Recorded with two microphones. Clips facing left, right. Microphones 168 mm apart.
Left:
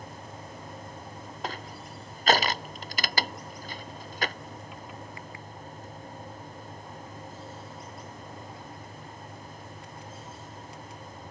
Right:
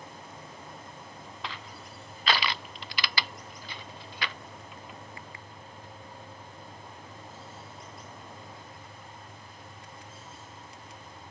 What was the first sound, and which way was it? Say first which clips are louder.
Crushing: left 6 dB; 45° left (ahead or behind).